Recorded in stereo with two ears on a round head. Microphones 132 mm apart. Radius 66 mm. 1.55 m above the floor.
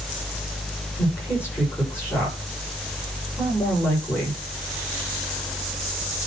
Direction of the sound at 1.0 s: 15° left (ahead or behind).